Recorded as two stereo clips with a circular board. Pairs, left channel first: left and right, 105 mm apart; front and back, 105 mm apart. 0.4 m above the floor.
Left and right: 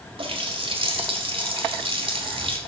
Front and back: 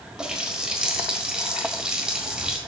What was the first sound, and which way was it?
A running tap, 100° right.